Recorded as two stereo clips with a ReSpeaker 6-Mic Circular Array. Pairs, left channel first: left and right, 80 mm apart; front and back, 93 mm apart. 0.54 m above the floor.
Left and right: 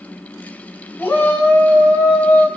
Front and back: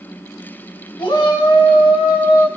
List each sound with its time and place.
1.0 s a shout: 25° left, 4.5 m; by 2.5 s 20° left, 3.5 m